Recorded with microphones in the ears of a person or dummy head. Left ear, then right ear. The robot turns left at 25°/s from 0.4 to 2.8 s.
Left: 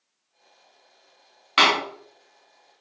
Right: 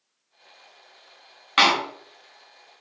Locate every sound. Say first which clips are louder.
1.6 s a door slam: even; 5° left (ahead or behind), 0.8 m; by 1.7 s centre (ahead or behind), 0.8 m